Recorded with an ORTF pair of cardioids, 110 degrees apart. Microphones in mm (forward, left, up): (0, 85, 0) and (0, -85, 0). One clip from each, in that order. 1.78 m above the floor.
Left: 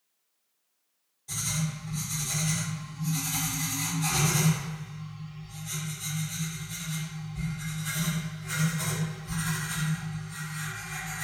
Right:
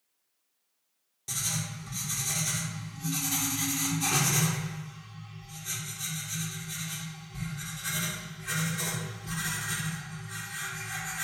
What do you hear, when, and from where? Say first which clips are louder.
1.3 s writing: even; 70° right, 1.1 m